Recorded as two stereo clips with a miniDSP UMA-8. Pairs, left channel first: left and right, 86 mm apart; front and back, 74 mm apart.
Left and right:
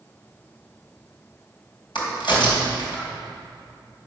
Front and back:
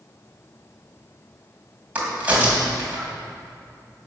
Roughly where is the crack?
Left.